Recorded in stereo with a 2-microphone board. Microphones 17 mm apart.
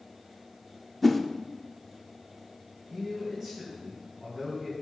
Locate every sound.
1.0 s a whoosh: 5° left (ahead or behind), 0.6 m
2.9 s a man speaking: centre (ahead or behind), 3 m